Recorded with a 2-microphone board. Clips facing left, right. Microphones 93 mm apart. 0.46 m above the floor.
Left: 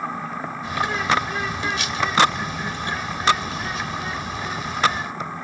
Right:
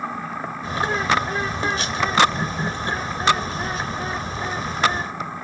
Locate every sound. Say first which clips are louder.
0.6 s a bird: right 1 dB; 35° right (ahead or behind), 1.1 m